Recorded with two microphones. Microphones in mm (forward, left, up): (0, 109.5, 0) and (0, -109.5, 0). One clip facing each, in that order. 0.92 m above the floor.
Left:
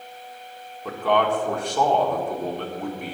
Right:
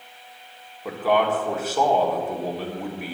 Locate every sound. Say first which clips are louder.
0.8 s a man speaking: even; 5° right (ahead or behind), 1.8 m